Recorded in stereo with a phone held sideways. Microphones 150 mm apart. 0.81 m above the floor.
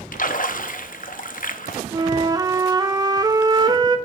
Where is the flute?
25° right (ahead or behind), 0.7 m.